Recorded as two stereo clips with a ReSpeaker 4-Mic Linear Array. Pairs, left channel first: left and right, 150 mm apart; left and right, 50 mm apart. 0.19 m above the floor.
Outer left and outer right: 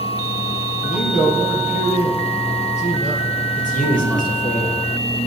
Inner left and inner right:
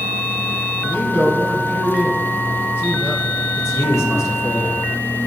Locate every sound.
0.8 s a man speaking: 50° left (ahead or behind), 3.5 m
3.6 s a man speaking: 65° left (ahead or behind), 4 m